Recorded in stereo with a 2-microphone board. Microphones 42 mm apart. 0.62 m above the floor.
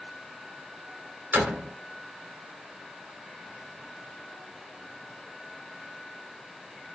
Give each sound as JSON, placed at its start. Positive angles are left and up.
{"t": 1.3, "sound": "a door slam", "side_deg": -55, "distance_m": 1.2}